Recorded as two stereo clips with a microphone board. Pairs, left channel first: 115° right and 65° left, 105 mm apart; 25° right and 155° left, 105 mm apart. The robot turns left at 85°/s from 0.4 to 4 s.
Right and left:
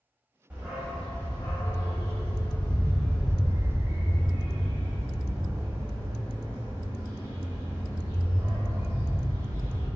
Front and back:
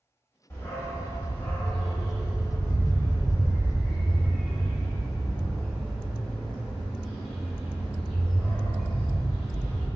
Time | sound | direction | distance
0.5 | a dog barking | 10° left | 1.2 m